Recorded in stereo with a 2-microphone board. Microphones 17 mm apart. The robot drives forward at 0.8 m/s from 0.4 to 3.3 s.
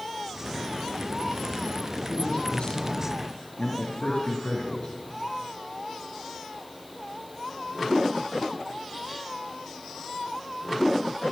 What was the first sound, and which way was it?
A man speaking, 70° left (ahead or behind).